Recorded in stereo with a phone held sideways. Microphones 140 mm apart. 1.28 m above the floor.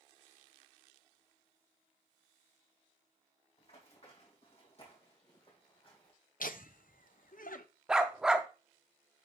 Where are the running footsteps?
50° left (ahead or behind), 4 m; by 6.1 s 40° left (ahead or behind), 3 m.